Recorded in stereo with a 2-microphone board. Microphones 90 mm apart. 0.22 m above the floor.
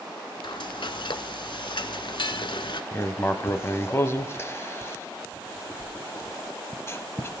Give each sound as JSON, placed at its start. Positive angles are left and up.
{"t": 0.4, "sound": "frying", "side_deg": 60, "distance_m": 0.5}
{"t": 2.9, "sound": "writing", "side_deg": 30, "distance_m": 0.8}